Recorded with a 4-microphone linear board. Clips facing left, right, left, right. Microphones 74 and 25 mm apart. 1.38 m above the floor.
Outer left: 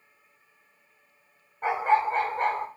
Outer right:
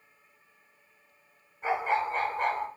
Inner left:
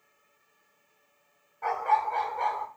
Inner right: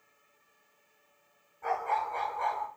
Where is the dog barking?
60° left (ahead or behind), 1.8 m; by 2.7 s 50° left (ahead or behind), 1.8 m.